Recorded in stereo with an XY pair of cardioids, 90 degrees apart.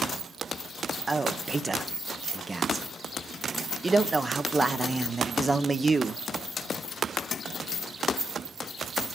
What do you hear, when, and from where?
1.1 s a man speaking: 30° right, 0.8 m